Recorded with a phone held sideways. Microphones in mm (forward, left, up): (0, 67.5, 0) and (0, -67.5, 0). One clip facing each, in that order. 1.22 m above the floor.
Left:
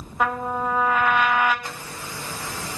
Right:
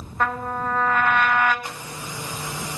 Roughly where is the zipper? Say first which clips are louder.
Right 1 dB; centre.